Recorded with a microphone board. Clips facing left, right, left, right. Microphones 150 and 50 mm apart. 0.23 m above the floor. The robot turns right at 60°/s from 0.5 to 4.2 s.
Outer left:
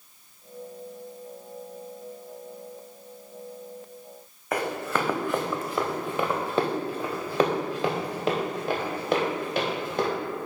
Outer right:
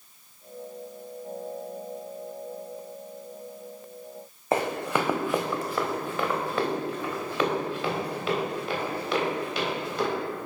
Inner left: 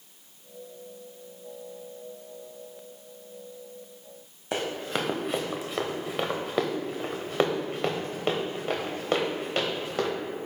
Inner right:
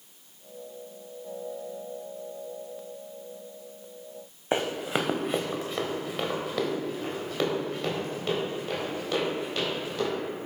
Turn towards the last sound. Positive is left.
turn(degrees=45)  # may be behind; listen again after turning